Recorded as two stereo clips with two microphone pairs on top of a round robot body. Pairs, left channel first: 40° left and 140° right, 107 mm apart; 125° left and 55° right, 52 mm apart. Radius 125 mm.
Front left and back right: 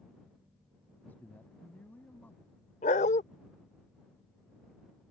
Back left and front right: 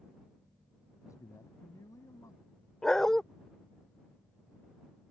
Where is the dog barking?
40° left.